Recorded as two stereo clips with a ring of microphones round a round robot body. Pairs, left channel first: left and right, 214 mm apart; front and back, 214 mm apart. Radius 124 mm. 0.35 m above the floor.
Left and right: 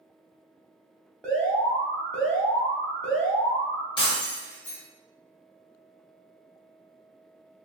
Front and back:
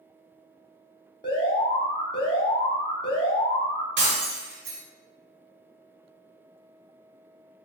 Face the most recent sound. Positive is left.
turn(degrees=155)